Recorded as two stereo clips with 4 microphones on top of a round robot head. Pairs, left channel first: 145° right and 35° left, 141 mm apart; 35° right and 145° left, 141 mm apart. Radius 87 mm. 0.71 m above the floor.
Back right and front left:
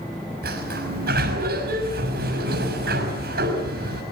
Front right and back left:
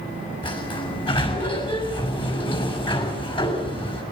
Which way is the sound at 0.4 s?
20° left.